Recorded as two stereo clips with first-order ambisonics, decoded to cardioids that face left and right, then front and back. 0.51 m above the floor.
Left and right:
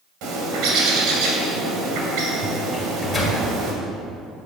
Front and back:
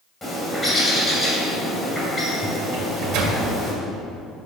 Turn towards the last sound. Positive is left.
turn(degrees=175)